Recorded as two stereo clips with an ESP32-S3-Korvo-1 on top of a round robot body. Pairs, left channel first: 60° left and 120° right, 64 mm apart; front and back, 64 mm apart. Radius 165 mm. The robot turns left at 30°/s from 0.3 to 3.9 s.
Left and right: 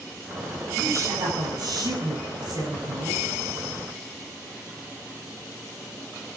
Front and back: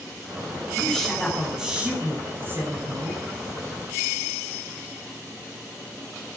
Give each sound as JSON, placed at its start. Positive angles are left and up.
{"t": 0.8, "sound": "a woman speaking", "azimuth_deg": -75, "distance_m": 6.5}